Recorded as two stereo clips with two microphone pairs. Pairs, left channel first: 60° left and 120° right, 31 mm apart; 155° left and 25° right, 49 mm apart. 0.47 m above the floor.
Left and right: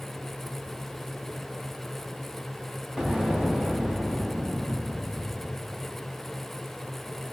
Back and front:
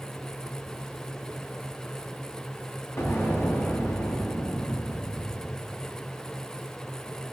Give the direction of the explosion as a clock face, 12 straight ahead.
6 o'clock.